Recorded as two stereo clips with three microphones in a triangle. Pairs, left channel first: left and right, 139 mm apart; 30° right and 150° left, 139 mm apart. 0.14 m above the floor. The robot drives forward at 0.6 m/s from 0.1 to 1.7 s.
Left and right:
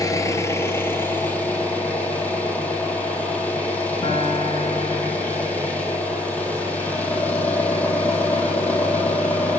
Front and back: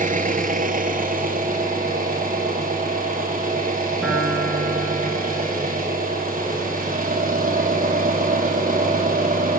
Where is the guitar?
55° left, 1.7 m.